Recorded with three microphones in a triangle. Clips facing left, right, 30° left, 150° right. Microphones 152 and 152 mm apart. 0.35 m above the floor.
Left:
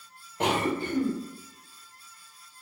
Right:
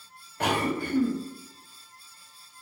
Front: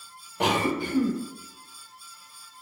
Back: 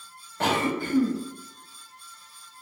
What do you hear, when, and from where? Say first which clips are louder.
0.4 s a cough: even, even; 70° left, 0.8 m